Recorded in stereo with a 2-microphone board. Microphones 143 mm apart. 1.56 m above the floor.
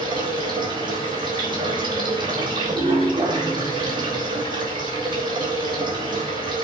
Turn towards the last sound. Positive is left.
turn(degrees=-35)  # may be behind; listen again after turning